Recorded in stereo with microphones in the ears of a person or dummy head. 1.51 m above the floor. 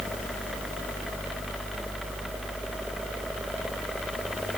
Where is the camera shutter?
I don't hear a camera shutter.